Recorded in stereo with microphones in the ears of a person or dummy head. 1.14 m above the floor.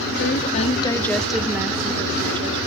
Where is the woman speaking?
55° left (ahead or behind), 1.0 m; by 2.6 s 25° right (ahead or behind), 2.0 m.